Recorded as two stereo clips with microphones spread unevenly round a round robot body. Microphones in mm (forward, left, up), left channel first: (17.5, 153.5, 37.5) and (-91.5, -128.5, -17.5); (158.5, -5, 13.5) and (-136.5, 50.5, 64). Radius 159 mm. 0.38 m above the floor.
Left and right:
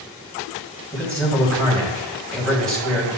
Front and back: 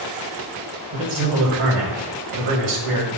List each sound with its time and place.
0.9 s a man speaking: 160° left, 2.5 m